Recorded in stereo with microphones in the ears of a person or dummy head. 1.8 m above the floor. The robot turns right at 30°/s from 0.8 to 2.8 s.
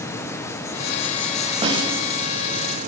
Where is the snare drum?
25° right (ahead or behind), 9.5 m; by 1.9 s 35° right (ahead or behind), 9.5 m.